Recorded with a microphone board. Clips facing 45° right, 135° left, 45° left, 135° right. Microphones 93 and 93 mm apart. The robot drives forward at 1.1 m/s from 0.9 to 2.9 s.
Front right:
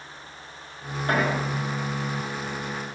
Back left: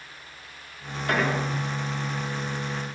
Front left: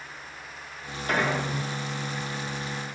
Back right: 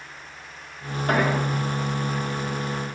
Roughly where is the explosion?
Right.